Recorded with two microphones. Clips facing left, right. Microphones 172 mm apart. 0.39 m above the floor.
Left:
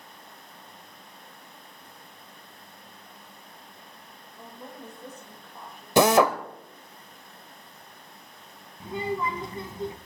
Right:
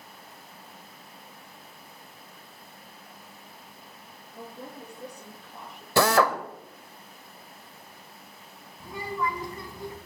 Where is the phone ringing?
No phone ringing in this recording.